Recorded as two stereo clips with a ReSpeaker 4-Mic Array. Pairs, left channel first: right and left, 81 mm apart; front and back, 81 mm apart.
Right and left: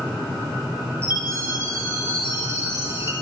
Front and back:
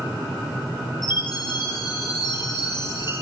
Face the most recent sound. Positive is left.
turn(degrees=30)